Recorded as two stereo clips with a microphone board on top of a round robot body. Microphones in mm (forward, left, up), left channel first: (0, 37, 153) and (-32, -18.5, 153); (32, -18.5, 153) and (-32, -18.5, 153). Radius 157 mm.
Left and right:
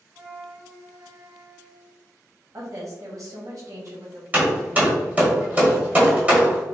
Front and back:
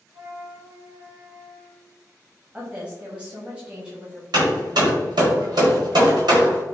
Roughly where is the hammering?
Behind.